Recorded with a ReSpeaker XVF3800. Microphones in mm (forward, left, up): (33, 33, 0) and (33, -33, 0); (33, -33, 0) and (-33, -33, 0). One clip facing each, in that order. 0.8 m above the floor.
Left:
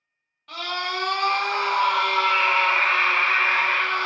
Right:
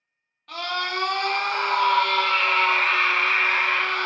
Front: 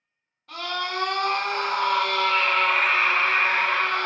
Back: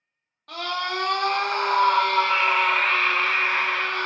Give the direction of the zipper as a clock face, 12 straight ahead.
No zipper in this recording.